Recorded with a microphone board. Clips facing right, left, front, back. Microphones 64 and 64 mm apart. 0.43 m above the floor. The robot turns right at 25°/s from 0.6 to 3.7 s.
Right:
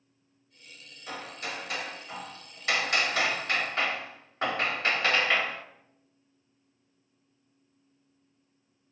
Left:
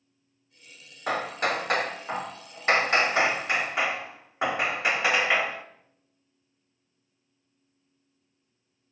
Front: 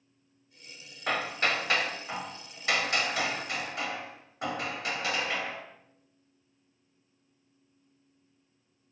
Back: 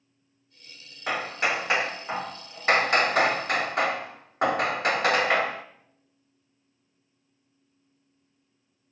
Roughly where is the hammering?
Left.